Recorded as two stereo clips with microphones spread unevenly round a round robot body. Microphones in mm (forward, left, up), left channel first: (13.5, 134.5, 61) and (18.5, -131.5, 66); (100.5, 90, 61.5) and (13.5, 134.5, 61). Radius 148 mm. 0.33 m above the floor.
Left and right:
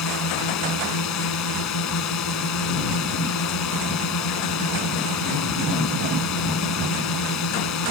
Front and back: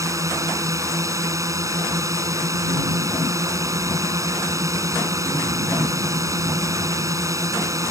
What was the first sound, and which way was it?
A drone, 100° left.